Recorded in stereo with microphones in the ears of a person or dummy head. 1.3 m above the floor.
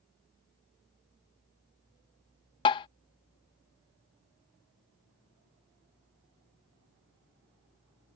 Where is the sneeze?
No sneeze in this recording.